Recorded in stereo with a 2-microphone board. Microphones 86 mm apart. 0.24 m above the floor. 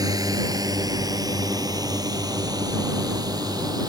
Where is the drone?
50° right (ahead or behind); by 3.9 s 55° right (ahead or behind).